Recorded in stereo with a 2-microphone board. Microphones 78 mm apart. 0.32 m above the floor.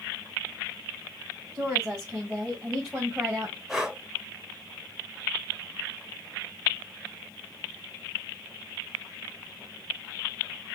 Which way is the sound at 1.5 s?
20° right (ahead or behind).